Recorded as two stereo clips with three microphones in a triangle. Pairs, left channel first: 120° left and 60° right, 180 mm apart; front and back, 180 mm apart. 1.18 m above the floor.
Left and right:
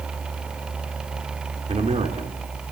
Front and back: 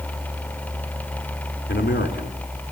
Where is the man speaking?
5° right, 3 m.